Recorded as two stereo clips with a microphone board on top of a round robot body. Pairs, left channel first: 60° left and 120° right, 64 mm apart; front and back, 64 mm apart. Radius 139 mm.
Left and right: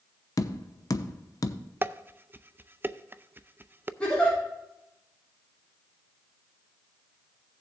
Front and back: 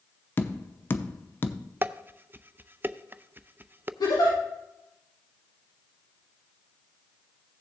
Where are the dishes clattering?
150° right, 0.6 m.